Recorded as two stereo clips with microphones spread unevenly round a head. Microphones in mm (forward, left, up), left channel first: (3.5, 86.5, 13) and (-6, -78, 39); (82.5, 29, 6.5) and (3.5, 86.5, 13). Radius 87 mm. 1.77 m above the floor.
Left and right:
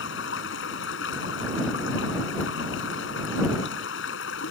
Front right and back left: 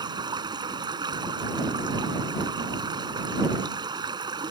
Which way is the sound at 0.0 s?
100° left.